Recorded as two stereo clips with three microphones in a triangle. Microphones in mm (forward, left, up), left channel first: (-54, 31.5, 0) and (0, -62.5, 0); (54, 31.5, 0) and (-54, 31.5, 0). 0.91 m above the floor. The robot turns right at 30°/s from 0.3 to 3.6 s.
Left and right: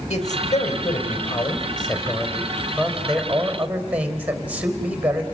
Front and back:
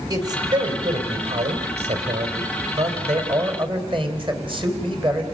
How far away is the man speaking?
About 3.5 m.